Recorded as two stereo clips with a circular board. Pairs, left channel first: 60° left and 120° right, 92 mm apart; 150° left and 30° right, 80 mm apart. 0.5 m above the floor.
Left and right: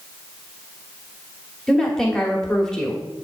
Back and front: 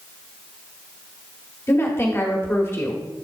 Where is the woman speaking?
140° left, 1.4 m.